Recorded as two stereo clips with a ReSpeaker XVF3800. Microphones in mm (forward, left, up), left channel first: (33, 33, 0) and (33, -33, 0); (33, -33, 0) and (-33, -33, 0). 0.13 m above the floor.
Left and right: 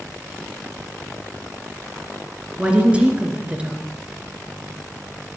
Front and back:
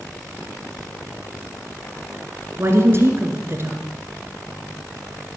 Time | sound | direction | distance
2.6 | a woman speaking | 150° right | 2 m